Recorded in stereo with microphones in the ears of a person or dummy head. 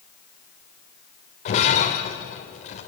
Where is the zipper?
No zipper in this recording.